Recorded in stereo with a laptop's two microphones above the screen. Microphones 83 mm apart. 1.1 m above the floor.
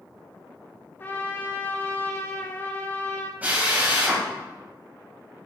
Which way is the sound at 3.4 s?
20° right (ahead or behind).